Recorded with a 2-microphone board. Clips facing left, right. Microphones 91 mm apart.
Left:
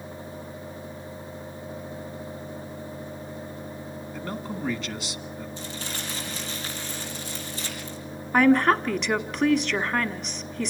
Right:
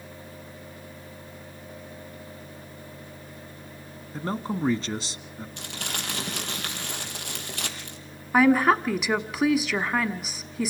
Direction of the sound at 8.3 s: 5° right (ahead or behind).